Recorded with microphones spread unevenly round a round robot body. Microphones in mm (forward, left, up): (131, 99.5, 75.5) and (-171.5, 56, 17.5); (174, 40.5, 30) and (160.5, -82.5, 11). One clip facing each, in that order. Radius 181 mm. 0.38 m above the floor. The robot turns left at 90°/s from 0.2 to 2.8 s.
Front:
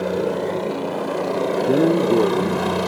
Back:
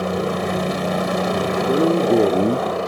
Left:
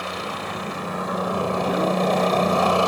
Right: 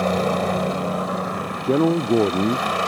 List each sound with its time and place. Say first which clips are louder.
0.0 s a helicopter: front 1 dB, right 10 dB; 95° right; by 2.9 s 30° left
1.6 s a man speaking: even, right 6 dB; 45° right; by 2.7 s 135° right